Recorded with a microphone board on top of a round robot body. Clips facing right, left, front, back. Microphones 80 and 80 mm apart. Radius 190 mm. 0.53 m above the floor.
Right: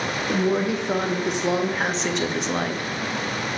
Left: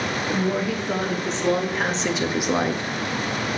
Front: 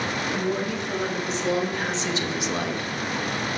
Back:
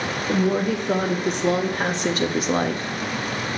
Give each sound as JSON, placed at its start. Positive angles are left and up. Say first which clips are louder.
{"t": 0.3, "sound": "a woman speaking", "louder": "right 3 dB, back 8 dB", "azimuth_deg": -155, "distance_m": 2.5}